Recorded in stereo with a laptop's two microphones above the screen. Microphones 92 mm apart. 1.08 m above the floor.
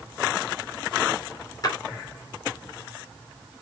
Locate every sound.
1.6 s a splash: 45° left (ahead or behind), 2.5 m